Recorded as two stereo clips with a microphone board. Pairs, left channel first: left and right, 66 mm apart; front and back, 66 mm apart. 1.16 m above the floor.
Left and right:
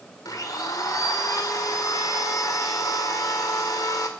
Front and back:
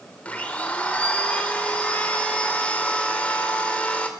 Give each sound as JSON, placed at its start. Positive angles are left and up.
{"t": 0.2, "sound": "a blender", "azimuth_deg": 70, "distance_m": 2.5}